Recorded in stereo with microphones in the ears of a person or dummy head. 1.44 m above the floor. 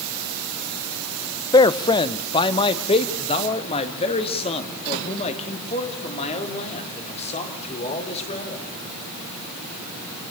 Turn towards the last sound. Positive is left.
turn(degrees=35)  # may be behind; listen again after turning